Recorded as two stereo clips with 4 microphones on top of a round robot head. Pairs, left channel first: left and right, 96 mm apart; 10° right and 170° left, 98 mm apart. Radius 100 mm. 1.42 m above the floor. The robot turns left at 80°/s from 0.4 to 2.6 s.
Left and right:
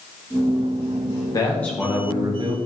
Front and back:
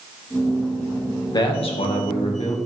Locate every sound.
1.3 s a man speaking: 35° left, 1.9 m; by 2.5 s 60° right, 1.9 m